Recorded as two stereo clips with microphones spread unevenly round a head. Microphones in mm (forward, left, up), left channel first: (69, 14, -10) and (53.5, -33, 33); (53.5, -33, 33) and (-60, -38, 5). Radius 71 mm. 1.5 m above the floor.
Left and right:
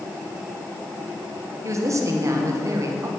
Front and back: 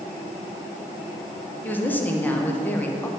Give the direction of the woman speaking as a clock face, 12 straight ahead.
2 o'clock.